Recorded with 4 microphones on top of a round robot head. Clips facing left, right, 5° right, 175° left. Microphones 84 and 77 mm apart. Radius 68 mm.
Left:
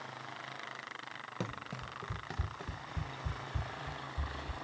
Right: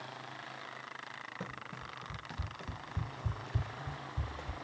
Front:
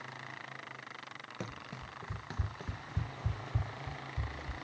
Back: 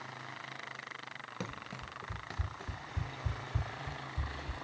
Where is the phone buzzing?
No phone buzzing in this recording.